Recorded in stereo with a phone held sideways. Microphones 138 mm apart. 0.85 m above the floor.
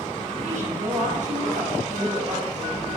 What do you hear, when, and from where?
0.4 s a woman speaking: 65° right (ahead or behind), 5 m